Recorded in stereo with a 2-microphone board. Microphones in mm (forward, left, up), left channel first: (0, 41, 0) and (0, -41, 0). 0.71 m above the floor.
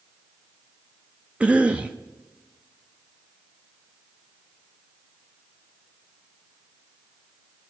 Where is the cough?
15° right (ahead or behind), 0.5 m.